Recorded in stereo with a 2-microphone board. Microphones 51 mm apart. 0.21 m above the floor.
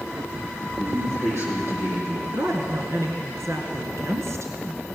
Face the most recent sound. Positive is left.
turn(degrees=-65)  # may be behind; listen again after turning